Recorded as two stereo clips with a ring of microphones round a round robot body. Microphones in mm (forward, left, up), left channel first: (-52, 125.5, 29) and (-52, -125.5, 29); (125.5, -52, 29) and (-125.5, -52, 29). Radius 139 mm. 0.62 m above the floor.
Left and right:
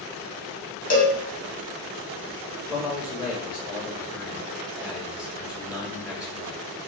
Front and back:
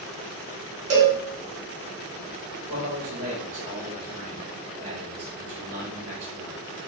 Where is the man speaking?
175° right, 2.5 m.